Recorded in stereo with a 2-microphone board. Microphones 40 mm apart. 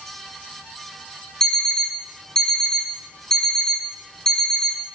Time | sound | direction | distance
1.4 | an alarm clock | 15° left (ahead or behind) | 0.9 m